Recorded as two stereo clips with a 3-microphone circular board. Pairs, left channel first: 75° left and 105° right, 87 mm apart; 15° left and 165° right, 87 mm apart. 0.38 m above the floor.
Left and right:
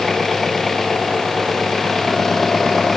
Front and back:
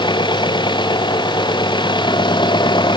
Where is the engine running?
10° right.